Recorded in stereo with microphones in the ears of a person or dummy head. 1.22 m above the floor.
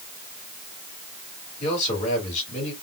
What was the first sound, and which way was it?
A man speaking, 40° left (ahead or behind).